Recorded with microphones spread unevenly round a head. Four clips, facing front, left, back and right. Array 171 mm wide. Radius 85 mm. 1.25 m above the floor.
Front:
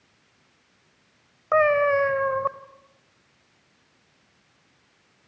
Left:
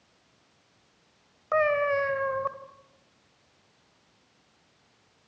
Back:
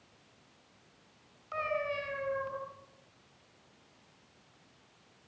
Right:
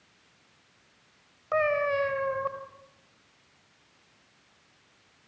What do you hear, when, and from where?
1.5 s a cat meowing: 5° left, 2 m